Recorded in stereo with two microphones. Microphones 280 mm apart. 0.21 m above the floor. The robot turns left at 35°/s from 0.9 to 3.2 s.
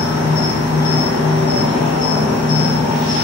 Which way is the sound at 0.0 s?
125° left.